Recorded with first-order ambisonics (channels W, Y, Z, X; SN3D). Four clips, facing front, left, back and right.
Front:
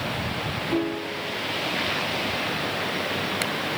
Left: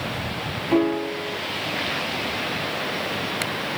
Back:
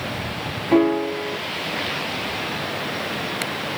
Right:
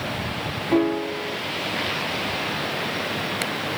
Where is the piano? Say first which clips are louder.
Even, back 12 dB; straight behind.